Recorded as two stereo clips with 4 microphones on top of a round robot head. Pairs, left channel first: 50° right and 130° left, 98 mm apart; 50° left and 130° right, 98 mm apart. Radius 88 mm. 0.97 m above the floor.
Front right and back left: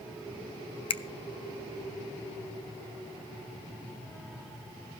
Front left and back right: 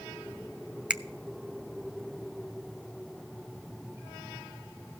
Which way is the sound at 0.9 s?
55° right.